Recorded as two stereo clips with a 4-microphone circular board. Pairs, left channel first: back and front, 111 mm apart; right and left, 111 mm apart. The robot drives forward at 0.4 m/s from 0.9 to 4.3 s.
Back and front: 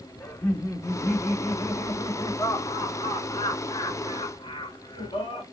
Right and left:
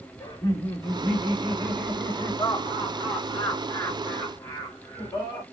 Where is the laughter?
135° right, 1.4 m; by 5.4 s 165° right, 2.5 m.